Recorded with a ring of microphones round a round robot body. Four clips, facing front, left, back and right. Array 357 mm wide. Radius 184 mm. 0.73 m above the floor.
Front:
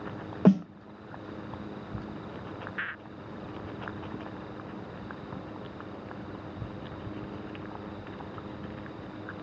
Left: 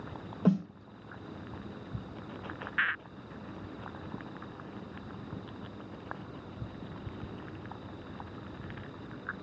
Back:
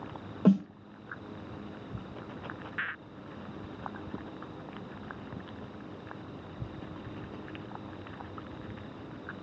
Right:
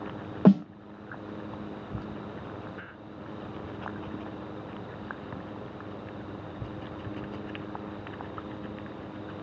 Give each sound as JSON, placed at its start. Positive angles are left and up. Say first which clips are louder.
{"t": 0.5, "sound": "a snare drum", "louder": "right 8 dB, front 2 dB", "azimuth_deg": -70, "distance_m": 0.5}